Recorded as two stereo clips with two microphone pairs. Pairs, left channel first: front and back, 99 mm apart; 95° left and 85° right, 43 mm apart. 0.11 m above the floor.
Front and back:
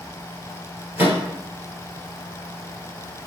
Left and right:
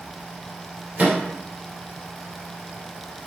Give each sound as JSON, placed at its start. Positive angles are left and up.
{"t": 1.0, "sound": "a microwave", "azimuth_deg": -115, "distance_m": 1.9}